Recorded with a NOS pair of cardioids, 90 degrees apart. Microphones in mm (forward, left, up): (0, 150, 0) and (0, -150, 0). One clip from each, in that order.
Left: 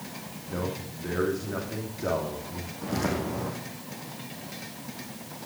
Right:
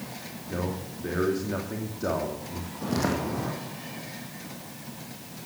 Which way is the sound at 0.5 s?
20° right.